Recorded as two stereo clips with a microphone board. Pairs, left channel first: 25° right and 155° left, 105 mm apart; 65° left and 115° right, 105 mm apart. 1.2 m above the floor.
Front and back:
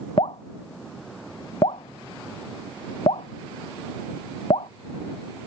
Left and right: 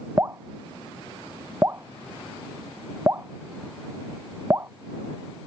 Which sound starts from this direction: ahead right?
Dripping, at 0.2 s.